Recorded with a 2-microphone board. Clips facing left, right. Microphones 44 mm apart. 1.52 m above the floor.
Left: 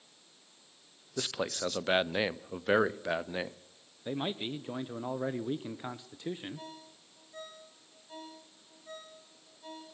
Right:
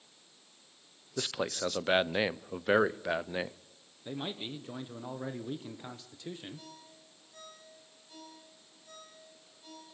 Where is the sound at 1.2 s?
5° right (ahead or behind), 0.6 m.